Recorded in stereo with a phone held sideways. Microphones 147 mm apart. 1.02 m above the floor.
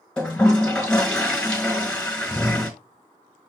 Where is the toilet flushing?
10° left (ahead or behind), 1.5 m.